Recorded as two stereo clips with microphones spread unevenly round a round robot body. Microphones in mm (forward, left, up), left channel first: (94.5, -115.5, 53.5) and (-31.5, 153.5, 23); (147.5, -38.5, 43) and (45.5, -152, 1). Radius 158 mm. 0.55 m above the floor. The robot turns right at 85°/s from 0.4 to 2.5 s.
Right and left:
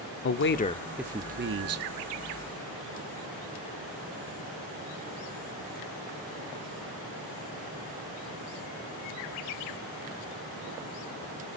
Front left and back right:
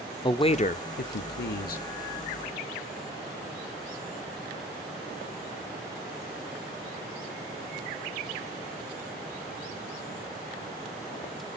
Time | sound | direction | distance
0.2 | a man speaking | 20° right | 1.1 m